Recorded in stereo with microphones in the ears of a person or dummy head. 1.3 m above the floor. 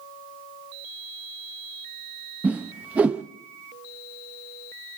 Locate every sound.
2.4 s a whoosh: 5° right (ahead or behind), 0.5 m